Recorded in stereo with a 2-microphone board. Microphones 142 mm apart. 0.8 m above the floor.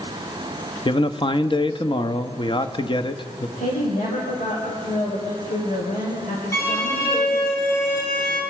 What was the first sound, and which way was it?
A man speaking, 35° left (ahead or behind).